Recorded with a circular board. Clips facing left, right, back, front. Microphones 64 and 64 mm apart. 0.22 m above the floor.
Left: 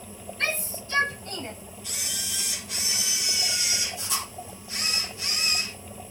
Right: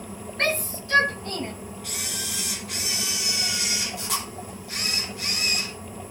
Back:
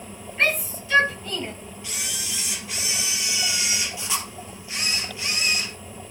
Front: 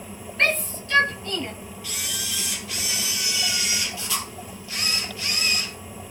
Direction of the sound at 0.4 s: 95° right.